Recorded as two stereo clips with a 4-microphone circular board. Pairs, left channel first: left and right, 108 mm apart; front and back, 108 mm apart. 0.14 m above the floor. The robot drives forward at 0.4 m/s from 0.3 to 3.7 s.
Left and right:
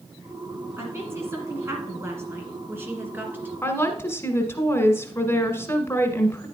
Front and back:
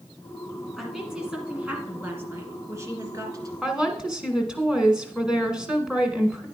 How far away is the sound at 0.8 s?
About 1.5 m.